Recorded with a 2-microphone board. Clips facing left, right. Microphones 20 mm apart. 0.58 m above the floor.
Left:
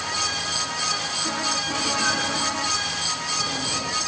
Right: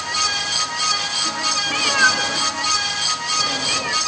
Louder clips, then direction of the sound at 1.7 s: Right 10 dB; 70° right (ahead or behind).